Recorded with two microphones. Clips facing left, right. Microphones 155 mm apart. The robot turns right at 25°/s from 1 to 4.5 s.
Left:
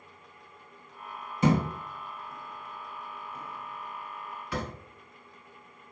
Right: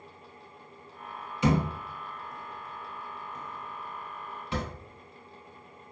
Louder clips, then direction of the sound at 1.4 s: Left 1 dB; 45° left (ahead or behind).